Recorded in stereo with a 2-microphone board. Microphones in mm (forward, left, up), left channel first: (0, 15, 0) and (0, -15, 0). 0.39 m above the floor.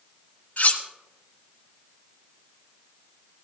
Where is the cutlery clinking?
60° left (ahead or behind), 1.5 m.